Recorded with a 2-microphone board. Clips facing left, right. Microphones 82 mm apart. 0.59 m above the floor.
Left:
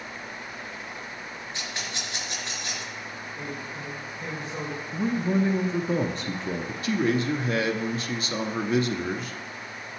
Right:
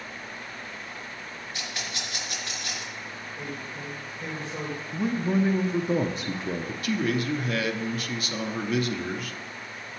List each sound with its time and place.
1.5 s a rattle: 25° left (ahead or behind), 4 m
3.4 s a man speaking: 5° left (ahead or behind), 2.5 m
4.9 s a man speaking: 5° right (ahead or behind), 0.6 m
6.8 s a man speaking: 30° left (ahead or behind), 0.7 m